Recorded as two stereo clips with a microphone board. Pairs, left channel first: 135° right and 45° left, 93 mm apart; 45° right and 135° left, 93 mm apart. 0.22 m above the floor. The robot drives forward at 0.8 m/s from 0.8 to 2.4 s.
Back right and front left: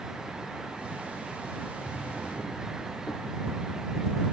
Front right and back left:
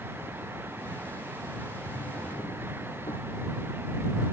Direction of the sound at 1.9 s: 55° right.